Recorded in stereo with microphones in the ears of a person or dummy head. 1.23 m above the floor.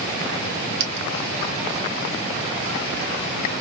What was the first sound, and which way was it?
A dropped coin, 60° right (ahead or behind).